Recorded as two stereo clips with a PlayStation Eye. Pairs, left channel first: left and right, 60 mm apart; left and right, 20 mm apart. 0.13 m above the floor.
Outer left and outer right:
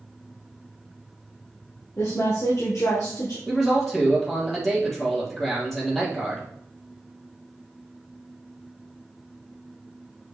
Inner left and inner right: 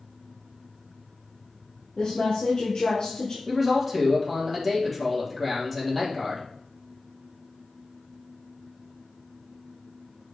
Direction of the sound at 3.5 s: 5° left (ahead or behind).